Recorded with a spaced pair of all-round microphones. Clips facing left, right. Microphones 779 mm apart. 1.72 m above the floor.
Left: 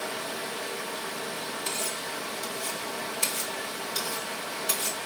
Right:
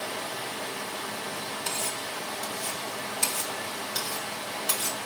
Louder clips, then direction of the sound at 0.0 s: Left 1 dB; 70° right (ahead or behind).